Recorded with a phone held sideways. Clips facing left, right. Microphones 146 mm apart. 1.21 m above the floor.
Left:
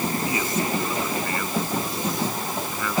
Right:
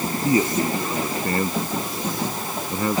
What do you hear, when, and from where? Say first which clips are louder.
0.2 s a man speaking: right 5 dB; 40° right (ahead or behind)